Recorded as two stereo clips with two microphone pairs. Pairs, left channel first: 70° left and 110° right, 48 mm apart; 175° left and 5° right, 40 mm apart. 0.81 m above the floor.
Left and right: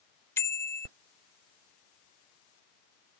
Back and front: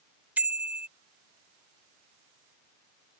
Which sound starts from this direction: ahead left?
A bicycle bell, at 0.4 s.